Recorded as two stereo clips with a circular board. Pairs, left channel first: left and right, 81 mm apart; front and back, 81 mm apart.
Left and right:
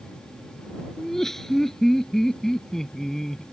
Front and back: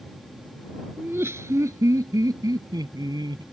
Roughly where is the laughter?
Behind.